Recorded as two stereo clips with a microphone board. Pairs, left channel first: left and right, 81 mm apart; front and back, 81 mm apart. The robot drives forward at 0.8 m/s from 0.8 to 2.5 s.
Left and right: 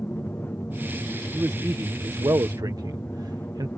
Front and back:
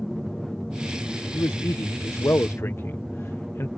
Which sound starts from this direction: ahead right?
A man speaking, at 1.3 s.